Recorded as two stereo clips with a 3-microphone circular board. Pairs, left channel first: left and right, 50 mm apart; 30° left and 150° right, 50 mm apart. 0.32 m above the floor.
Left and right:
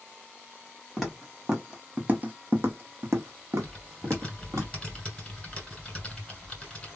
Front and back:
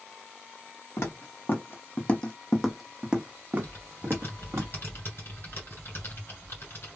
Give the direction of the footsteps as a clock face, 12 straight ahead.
12 o'clock.